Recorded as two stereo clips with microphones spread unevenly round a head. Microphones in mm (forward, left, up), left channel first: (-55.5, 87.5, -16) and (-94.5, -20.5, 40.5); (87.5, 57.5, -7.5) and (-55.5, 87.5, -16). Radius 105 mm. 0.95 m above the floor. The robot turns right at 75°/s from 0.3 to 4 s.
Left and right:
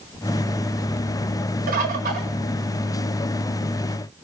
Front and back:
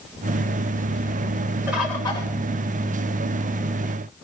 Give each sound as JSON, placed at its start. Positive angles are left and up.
{"t": 1.7, "sound": "a bird", "azimuth_deg": -115, "distance_m": 1.6}